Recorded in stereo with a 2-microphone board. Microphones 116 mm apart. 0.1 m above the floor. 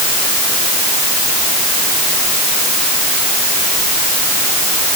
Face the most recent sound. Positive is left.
No sound to turn to.